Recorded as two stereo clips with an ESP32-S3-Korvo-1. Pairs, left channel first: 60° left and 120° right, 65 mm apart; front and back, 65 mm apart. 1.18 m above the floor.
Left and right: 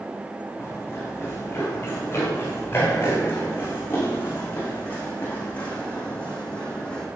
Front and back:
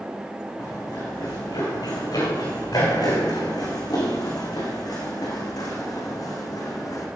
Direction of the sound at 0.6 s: 5° left.